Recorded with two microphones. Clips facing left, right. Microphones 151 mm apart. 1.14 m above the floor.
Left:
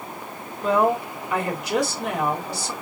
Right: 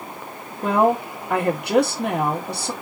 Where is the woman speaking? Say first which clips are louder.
Right 2 dB; 60° right (ahead or behind), 1.4 m.